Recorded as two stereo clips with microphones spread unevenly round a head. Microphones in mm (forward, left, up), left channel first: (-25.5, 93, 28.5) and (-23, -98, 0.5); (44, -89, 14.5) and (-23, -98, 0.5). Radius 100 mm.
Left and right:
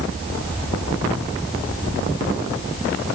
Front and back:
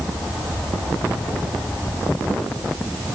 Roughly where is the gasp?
No gasp in this recording.